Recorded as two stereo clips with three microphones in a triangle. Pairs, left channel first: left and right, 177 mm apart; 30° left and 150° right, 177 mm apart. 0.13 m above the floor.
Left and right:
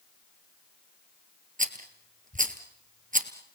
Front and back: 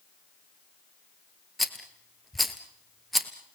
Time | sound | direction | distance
1.6 | a rattle | 60° right | 1.6 m